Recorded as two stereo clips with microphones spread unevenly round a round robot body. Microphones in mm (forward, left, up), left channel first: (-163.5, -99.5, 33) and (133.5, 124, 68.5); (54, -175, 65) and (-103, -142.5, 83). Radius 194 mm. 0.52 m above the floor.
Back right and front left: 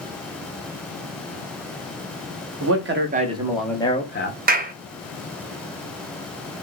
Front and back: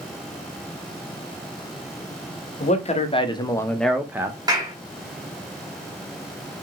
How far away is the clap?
About 0.6 m.